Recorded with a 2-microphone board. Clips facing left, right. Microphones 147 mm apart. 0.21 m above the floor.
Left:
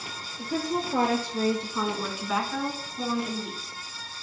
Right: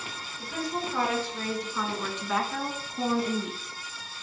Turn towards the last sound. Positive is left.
turn(degrees=-50)  # may be behind; listen again after turning